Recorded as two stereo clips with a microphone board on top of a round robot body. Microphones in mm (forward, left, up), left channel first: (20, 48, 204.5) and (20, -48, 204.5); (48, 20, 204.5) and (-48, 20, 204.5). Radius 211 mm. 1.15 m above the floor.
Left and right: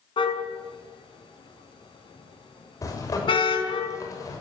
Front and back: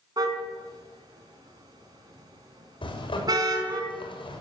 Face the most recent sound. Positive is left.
turn(degrees=35)